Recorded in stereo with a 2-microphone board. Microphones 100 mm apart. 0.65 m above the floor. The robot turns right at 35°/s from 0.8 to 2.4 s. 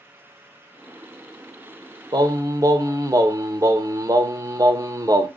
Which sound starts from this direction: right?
Singing, at 2.1 s.